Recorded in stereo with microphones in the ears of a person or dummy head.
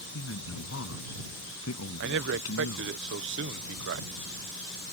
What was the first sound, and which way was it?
A man speaking, 85° left.